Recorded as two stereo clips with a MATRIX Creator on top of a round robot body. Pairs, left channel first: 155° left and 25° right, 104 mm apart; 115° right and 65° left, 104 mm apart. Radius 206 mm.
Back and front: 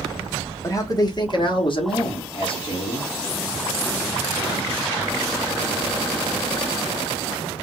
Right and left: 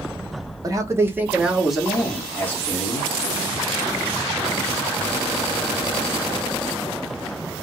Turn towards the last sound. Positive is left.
turn(degrees=180)